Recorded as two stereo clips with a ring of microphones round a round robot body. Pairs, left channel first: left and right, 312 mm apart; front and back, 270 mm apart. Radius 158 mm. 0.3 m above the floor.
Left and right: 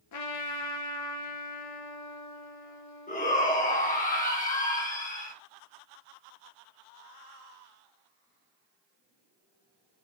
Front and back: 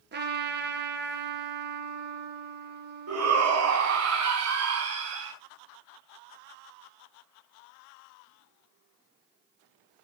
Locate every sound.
0.1 s a trumpet: 125° left, 1.8 m
3.1 s a shout: 155° left, 2.5 m